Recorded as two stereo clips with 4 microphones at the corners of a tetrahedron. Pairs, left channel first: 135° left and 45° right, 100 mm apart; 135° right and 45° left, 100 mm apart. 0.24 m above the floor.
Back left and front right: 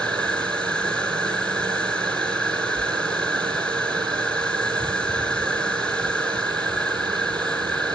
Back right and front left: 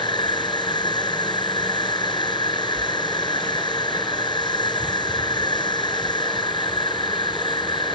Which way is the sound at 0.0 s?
150° right.